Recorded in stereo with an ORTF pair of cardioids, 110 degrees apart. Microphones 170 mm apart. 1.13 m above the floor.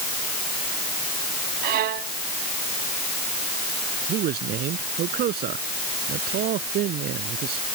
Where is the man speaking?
70° right.